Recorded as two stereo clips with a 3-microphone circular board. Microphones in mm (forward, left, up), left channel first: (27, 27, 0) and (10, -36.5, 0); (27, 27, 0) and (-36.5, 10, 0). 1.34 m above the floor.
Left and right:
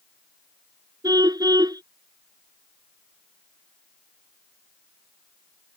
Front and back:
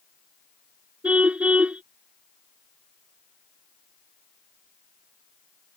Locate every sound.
1.0 s a car horn: 95° right